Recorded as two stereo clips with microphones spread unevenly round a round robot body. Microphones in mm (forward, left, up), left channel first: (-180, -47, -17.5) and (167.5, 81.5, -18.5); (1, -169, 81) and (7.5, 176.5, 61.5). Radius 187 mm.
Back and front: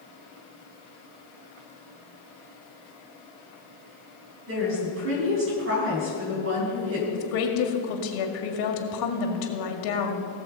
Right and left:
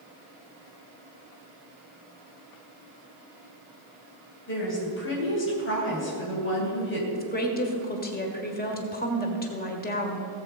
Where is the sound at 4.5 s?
35° right, 3.5 m.